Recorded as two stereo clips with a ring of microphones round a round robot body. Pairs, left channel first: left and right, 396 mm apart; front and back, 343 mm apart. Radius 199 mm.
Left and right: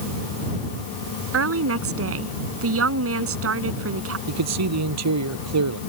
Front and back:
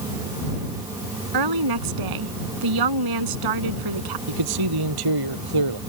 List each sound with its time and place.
1.3 s a woman speaking: 145° right
4.3 s a man speaking: 140° right